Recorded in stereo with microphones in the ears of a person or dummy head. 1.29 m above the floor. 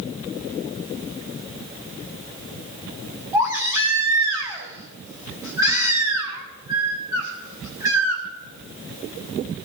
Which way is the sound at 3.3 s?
15° right (ahead or behind).